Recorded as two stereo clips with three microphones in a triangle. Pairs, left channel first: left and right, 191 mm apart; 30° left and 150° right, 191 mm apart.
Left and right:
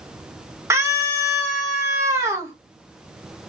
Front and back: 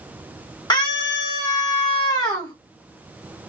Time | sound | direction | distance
0.7 | a scream | 25° right | 1.3 m